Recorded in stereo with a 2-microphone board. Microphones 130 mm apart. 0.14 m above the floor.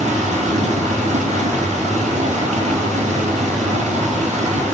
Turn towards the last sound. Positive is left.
turn(degrees=-75)  # may be behind; listen again after turning